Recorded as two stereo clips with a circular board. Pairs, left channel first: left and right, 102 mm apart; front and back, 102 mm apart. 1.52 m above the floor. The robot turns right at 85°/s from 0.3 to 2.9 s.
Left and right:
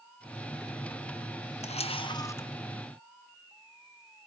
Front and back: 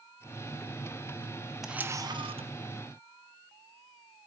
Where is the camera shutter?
95° left, 1.1 m; by 2.5 s 165° left, 1.1 m.